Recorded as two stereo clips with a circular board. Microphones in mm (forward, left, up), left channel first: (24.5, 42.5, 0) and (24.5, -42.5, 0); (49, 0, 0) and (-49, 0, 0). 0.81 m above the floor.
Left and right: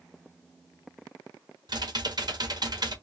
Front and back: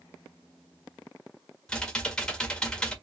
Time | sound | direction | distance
1.7 | typing on a keyboard | 80° right | 1.3 m